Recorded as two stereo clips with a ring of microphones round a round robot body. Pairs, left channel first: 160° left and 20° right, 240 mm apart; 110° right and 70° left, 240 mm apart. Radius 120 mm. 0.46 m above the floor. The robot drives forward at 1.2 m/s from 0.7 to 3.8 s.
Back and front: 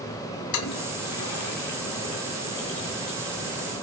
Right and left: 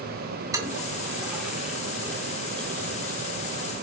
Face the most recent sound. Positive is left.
turn(degrees=165)